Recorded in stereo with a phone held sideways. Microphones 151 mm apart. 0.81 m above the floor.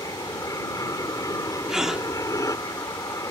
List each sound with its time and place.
0.0 s an aircraft: 25° left (ahead or behind)
1.7 s a gasp: 5° right (ahead or behind)